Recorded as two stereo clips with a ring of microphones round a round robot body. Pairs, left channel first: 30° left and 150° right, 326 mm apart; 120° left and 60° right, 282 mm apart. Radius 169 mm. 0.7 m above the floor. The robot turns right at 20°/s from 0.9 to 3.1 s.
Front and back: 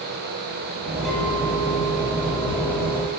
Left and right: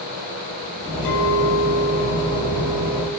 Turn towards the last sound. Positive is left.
turn(degrees=160)